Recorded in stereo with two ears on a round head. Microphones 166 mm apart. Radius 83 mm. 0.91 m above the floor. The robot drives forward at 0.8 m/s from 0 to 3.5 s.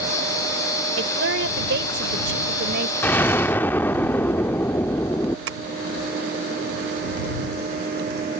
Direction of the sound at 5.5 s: 85° right.